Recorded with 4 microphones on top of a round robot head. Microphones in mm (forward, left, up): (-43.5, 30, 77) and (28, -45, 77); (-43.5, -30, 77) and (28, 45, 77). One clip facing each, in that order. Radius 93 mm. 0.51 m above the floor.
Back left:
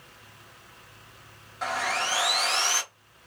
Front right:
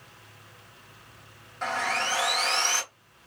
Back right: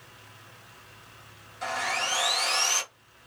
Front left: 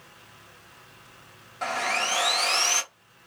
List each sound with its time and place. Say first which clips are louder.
1.6 s sawing: even, front left 3 dB; 50° left, 0.8 m